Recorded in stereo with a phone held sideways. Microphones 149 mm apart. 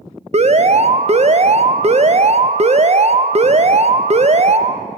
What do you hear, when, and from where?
0.3 s an alarm: 45° right (ahead or behind), 0.5 m